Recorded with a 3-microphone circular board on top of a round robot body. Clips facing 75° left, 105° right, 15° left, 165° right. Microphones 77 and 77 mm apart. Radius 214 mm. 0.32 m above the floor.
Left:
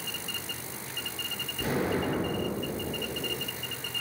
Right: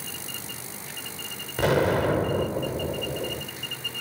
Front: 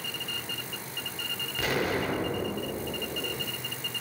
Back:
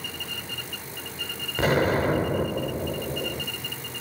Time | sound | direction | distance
1.6 | an explosion | 110° right | 1.7 m